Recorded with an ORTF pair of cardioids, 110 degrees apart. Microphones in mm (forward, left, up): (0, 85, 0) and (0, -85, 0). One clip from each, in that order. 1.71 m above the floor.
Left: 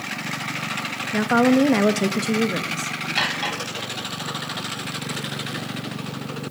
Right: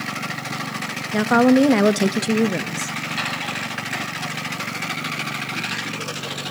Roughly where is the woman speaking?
Ahead.